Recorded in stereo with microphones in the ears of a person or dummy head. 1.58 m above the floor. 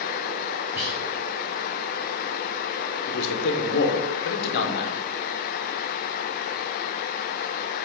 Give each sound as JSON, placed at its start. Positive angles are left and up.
{"t": 0.8, "sound": "whispering", "side_deg": -10, "distance_m": 0.9}
{"t": 3.1, "sound": "a man speaking", "side_deg": 70, "distance_m": 1.1}